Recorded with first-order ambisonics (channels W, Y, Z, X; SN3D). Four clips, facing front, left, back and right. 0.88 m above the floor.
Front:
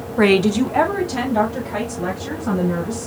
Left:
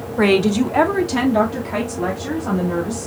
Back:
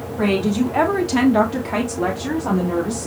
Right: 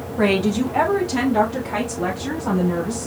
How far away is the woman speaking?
About 1.2 m.